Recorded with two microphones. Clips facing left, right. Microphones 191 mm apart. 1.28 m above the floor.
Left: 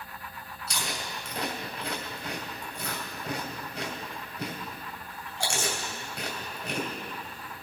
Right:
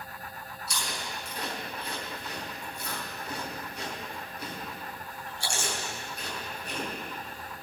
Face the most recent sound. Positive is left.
turn(degrees=75)  # may be behind; listen again after turning